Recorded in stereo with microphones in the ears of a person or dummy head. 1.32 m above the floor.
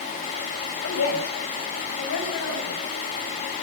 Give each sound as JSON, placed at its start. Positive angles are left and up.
{"t": 0.8, "sound": "a woman speaking", "side_deg": 90, "distance_m": 7.5}